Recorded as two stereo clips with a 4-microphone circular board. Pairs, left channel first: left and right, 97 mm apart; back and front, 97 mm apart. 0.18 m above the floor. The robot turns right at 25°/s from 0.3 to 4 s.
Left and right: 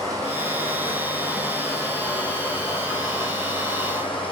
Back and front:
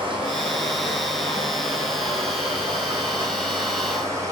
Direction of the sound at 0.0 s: 35° right.